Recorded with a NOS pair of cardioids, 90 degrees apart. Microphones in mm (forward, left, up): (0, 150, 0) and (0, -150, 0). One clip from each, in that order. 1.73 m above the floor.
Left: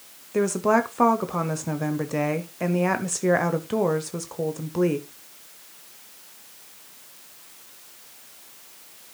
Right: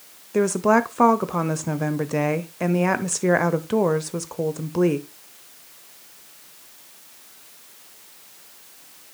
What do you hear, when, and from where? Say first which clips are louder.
0.3 s a woman speaking: right 2 dB; 15° right, 0.7 m